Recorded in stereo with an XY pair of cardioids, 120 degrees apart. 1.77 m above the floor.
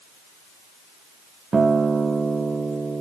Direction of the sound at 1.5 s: 20° right.